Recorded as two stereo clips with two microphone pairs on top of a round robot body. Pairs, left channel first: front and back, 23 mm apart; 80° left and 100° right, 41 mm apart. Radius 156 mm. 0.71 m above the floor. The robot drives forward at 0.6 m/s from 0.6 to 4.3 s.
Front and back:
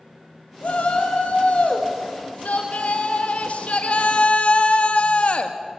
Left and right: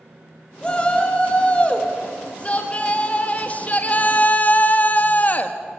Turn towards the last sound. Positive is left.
turn(degrees=35)